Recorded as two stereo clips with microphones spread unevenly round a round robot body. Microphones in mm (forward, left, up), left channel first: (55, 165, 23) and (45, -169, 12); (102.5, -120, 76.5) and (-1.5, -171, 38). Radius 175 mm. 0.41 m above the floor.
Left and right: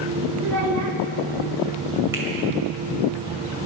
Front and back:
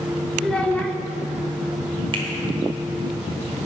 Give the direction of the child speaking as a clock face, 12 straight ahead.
2 o'clock.